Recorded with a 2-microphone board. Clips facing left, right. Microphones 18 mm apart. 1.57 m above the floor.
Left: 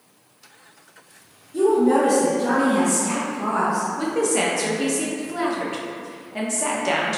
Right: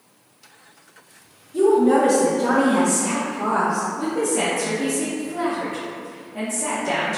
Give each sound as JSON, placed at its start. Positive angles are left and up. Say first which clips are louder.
{"t": 1.5, "sound": "a woman speaking", "louder": "right 1 dB", "side_deg": 10, "distance_m": 0.6}
{"t": 4.0, "sound": "a woman speaking", "louder": "left 1 dB", "side_deg": 50, "distance_m": 0.8}